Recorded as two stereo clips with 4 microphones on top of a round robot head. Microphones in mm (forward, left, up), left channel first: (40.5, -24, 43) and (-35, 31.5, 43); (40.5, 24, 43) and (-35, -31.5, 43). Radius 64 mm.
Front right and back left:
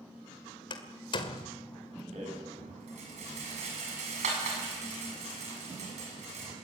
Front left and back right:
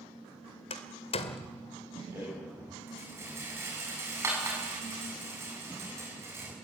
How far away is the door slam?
About 1.9 m.